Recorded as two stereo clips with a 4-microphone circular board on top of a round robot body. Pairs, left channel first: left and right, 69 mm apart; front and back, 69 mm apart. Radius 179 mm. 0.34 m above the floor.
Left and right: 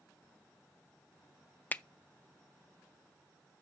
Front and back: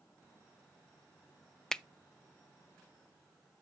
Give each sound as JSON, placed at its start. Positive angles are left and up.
{"t": 1.7, "sound": "a finger snap", "azimuth_deg": 70, "distance_m": 0.6}